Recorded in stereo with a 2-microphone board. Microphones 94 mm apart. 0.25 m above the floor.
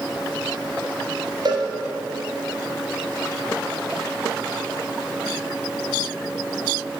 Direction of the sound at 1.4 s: 55° right (ahead or behind).